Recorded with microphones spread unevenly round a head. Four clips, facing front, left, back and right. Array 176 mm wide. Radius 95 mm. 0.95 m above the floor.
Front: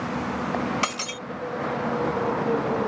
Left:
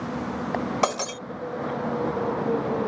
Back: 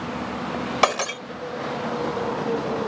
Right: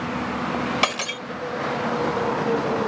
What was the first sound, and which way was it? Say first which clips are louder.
Breaking glass: left 1 dB, back 8 dB; 155° left.